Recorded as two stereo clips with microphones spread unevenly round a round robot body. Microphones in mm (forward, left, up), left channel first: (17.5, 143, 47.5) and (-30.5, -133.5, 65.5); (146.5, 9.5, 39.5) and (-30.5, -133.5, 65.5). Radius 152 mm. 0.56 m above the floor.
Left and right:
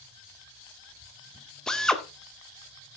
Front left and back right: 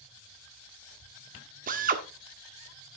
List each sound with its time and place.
1.7 s a drill: 165° left, 1.7 m